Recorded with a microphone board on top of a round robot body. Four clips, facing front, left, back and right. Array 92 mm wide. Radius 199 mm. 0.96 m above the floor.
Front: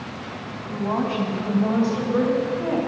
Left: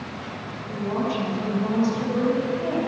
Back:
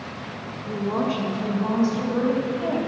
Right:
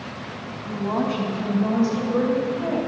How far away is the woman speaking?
About 2.5 m.